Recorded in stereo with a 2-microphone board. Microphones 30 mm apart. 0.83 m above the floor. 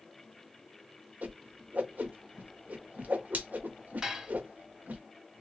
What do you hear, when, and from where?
1.2 s a whoosh: 65° right (ahead or behind), 0.8 m
4.0 s dishes clattering: 15° right (ahead or behind), 1.0 m